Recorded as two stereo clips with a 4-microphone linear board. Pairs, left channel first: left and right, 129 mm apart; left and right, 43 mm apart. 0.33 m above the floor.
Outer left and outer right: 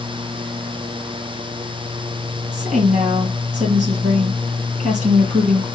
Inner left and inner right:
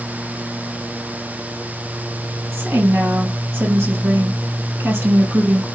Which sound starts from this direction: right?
A woman speaking, at 2.5 s.